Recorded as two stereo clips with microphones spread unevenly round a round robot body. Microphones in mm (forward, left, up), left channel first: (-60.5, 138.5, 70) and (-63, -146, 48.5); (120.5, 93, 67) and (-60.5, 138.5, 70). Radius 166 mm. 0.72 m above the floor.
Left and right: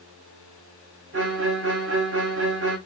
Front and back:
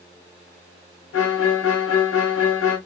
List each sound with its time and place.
1.1 s a violin: 35° right, 0.7 m